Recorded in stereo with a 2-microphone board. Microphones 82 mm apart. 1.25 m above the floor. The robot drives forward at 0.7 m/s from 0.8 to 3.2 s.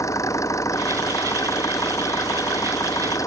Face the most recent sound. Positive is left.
turn(degrees=40)  # may be behind; listen again after turning